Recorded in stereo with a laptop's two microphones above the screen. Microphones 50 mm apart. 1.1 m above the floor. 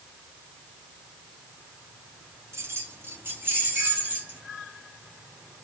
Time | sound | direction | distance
2.5 | keys jangling | 65° right (ahead or behind) | 1.5 m